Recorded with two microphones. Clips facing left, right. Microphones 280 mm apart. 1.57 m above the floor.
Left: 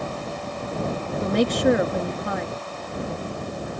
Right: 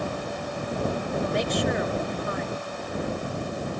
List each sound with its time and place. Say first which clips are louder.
1.2 s a woman speaking: left 8 dB; 85° left